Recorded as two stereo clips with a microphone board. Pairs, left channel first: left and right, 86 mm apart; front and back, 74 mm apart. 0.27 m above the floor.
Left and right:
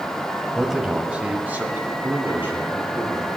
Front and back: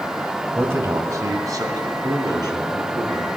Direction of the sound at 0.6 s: Straight behind.